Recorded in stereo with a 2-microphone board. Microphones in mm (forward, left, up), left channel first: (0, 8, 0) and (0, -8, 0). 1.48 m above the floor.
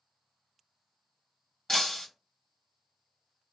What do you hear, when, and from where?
1.7 s breaking glass: 35° left (ahead or behind), 1.5 m